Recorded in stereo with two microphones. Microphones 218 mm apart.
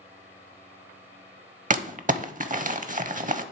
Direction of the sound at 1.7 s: 40° right (ahead or behind).